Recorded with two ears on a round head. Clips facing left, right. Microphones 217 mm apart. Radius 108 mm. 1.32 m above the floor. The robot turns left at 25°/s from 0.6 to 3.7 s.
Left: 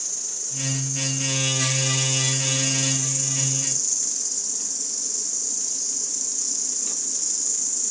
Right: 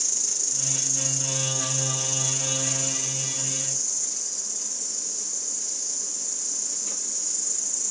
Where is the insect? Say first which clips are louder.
Right 2 dB; 145° right, 1.2 m; by 7.9 s 140° left, 1.2 m.